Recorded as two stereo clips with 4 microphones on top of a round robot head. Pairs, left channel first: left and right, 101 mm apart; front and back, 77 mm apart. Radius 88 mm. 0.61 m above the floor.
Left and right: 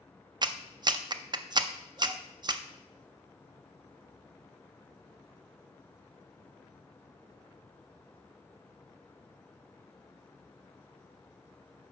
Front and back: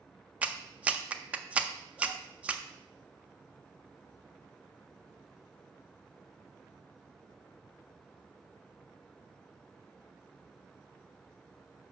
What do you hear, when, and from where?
0.4 s a clap: 115° right, 0.5 m